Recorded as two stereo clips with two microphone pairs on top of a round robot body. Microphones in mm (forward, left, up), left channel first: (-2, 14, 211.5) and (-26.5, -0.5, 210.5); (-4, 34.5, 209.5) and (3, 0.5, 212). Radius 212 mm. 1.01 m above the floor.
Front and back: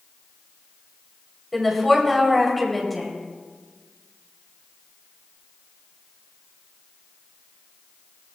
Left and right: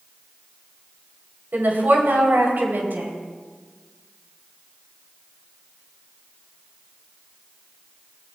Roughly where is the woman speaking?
Ahead right.